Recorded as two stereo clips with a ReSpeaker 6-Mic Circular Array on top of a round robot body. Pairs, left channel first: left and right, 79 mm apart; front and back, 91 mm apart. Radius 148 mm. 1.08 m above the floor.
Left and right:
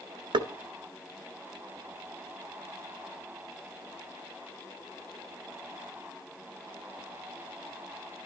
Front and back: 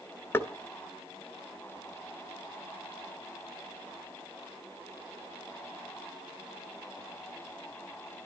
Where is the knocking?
70° right, 1.7 m.